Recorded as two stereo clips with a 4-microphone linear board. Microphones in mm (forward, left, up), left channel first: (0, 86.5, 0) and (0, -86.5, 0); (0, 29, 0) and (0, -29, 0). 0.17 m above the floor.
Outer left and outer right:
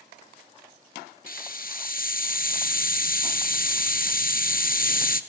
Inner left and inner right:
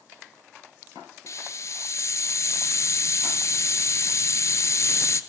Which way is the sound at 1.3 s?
55° left (ahead or behind).